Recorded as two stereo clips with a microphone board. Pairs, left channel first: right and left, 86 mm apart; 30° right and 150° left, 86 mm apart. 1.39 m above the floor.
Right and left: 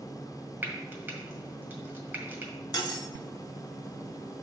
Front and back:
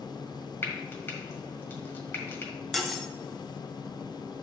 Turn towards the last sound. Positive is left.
turn(degrees=-115)